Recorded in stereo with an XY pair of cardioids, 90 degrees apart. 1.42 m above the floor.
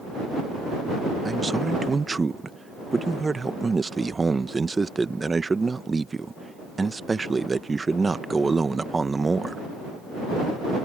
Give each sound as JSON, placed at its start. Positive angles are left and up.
{"t": 1.2, "sound": "a man speaking", "azimuth_deg": -25}